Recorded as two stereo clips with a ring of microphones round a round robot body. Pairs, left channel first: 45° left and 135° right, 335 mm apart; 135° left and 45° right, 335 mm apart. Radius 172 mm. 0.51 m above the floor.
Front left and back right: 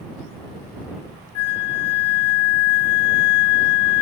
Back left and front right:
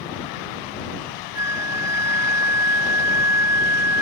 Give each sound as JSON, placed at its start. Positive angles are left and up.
{"t": 1.4, "sound": "a flute", "azimuth_deg": 40}